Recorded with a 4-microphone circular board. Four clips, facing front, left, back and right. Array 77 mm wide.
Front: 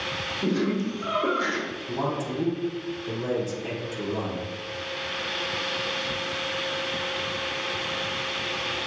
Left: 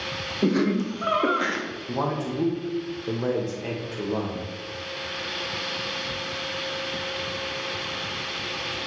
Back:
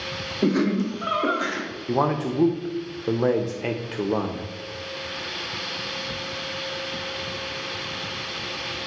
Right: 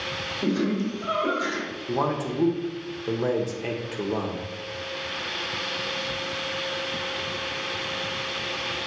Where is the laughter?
145° left, 0.8 m; by 1.8 s 85° left, 0.8 m.